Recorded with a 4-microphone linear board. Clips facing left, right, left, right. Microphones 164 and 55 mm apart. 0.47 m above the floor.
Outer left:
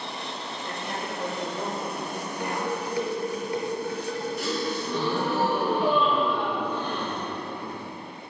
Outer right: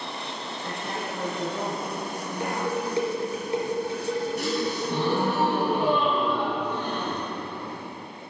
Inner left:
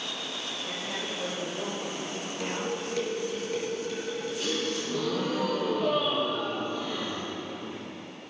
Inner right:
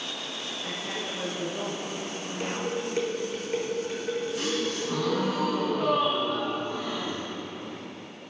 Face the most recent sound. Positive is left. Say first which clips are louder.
# outer right 2 dB, inner right 2 dB
turn(degrees=-70)  # may be behind; listen again after turning